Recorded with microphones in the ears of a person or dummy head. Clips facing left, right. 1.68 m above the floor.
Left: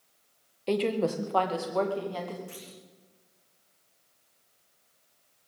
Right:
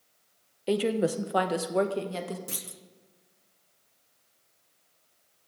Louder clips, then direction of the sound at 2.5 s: Right 1 dB; 65° right (ahead or behind).